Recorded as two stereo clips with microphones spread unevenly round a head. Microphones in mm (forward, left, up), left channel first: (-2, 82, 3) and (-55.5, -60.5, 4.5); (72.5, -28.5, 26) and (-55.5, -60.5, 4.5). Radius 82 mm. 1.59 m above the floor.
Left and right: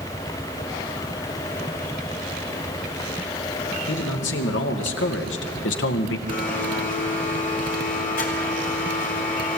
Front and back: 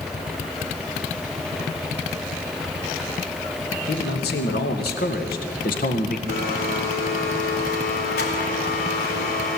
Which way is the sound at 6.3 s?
25° left.